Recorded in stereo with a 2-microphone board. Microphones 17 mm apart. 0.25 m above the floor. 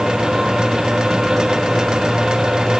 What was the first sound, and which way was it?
Only background noise.